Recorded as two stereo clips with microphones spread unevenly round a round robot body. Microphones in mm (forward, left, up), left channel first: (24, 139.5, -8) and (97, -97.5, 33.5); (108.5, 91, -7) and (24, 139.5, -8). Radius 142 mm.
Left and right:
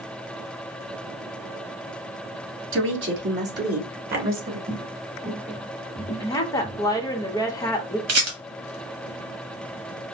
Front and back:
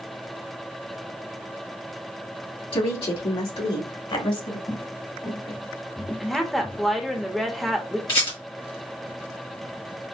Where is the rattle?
60° right, 1.5 m.